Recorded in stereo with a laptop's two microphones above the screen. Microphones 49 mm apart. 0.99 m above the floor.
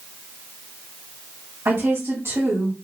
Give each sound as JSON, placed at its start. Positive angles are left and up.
{"t": 1.6, "sound": "a woman speaking", "side_deg": -70, "distance_m": 2.0}